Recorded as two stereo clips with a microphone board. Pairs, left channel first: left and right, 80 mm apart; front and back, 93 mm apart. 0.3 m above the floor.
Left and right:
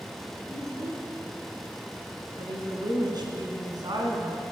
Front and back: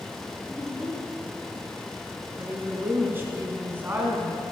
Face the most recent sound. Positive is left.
turn(degrees=-115)